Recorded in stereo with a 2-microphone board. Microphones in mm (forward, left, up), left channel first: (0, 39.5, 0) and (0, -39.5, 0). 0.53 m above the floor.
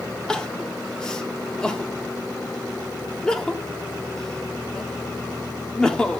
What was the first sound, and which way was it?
Crying, 10° left (ahead or behind).